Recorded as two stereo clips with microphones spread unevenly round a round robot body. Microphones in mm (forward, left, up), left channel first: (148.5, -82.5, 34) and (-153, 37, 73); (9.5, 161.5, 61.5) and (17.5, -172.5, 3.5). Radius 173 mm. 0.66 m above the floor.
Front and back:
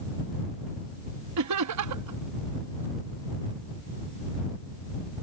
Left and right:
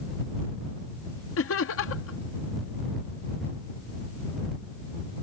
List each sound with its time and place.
1.4 s laughter: 140° left